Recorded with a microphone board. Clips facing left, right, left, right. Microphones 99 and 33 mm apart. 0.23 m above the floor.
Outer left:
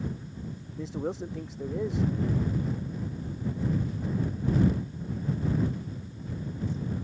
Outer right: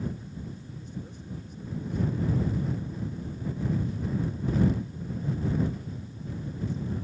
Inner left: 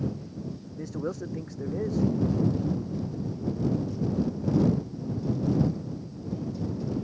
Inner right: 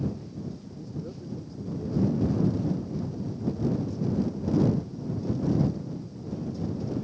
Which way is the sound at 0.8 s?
80° left.